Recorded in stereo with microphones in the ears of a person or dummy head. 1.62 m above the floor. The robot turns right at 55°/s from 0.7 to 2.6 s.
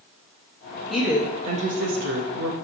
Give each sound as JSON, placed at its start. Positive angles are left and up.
{"t": 0.9, "sound": "a woman speaking", "azimuth_deg": 180, "distance_m": 0.9}